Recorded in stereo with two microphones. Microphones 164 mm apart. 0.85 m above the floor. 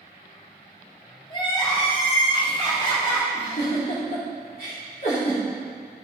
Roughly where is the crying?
Left.